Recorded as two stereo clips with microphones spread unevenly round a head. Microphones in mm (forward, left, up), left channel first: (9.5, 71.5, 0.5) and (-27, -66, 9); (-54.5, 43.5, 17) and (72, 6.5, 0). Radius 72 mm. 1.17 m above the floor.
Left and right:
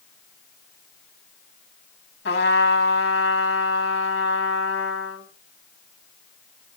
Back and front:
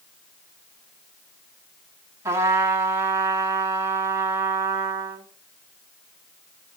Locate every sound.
2.2 s a trumpet: 55° left, 1.9 m